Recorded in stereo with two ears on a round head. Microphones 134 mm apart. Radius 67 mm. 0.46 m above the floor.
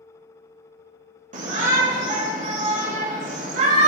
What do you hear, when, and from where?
1.3 s a shout: 55° right (ahead or behind), 1.6 m